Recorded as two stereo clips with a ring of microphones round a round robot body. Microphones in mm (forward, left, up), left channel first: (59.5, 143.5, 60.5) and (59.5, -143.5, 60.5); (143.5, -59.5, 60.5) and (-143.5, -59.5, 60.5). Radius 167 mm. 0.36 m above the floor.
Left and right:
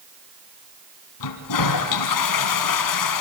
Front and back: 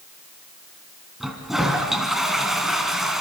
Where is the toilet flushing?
90° left, 2.5 m.